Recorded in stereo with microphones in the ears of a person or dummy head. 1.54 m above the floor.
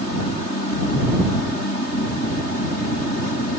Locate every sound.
Only background noise.